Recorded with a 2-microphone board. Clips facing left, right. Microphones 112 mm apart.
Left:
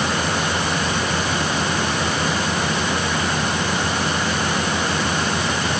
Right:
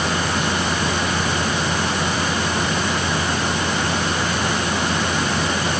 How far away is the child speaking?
No child speaking in this recording.